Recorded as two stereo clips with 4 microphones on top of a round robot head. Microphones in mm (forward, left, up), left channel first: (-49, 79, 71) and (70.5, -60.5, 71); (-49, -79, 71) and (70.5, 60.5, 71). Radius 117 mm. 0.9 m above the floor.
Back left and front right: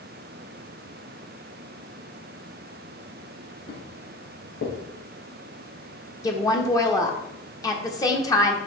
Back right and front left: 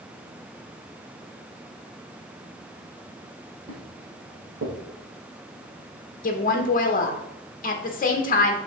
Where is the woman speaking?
160° right, 1.1 m.